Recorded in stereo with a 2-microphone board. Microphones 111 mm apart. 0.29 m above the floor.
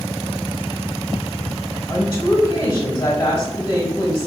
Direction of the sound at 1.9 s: 25° left (ahead or behind).